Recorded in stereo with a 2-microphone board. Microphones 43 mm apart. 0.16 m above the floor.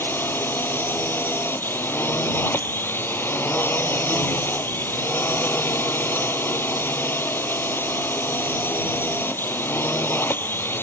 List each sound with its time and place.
0.0 s a drone: 55° left (ahead or behind)